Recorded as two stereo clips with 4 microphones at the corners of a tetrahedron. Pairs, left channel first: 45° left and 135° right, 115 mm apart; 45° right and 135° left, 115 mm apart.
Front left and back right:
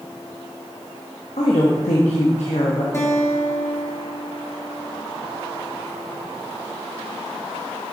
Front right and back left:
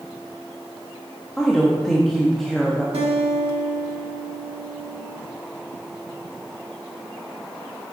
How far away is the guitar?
About 1.6 m.